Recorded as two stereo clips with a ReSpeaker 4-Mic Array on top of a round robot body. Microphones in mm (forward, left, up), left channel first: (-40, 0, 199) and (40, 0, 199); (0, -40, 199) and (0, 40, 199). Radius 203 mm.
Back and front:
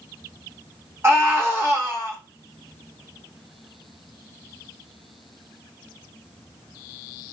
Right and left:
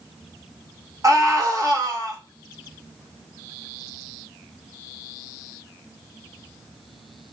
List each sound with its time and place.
1.0 s a scream: 55° left, 2 m